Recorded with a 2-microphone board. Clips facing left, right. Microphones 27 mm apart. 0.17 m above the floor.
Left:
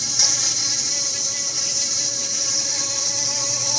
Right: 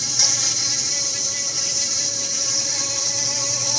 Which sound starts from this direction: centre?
An insect, at 0.0 s.